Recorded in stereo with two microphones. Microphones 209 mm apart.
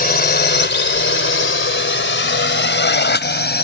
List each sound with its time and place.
0.0 s a drone: 45° left (ahead or behind); by 3.6 s 50° left (ahead or behind)